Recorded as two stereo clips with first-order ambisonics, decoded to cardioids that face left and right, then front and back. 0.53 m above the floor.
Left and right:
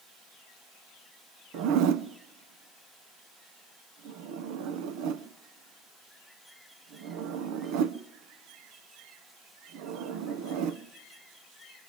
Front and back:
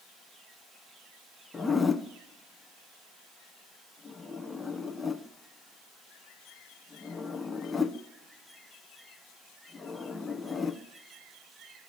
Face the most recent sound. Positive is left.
turn(degrees=-75)